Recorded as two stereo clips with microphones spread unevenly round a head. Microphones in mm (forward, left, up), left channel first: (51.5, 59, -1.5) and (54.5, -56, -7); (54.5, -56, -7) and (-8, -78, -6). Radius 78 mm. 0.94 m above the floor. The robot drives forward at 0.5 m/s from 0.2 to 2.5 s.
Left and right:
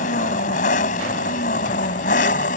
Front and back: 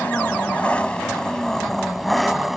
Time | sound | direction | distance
0.0 | an engine running | 100° left | ?